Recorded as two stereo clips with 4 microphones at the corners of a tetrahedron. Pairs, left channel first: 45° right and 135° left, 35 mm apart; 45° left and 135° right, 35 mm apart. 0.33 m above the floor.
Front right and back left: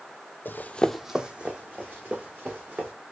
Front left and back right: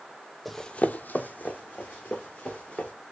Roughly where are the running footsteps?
Ahead right.